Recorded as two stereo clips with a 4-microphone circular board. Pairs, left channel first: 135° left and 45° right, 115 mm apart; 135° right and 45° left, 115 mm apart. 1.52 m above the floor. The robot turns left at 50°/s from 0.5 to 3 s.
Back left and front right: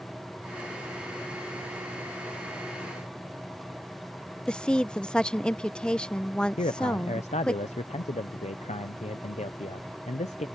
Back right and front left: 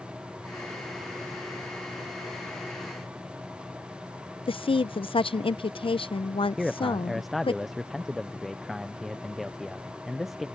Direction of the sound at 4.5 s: 145° right.